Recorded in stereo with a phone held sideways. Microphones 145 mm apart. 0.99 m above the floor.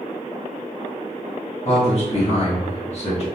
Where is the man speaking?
45° left (ahead or behind), 1.1 m.